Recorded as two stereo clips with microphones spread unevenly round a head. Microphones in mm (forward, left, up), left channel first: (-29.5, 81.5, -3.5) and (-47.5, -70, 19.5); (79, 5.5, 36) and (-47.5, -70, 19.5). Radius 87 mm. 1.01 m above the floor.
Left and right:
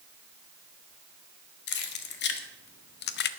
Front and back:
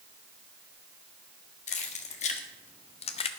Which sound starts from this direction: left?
Keys jangling, at 1.7 s.